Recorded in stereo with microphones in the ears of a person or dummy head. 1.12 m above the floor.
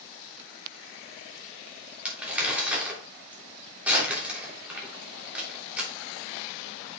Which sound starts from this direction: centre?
Crumpling, at 2.0 s.